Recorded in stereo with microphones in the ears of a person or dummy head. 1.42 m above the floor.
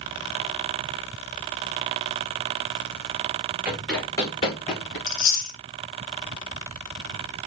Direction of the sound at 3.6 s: 10° right (ahead or behind).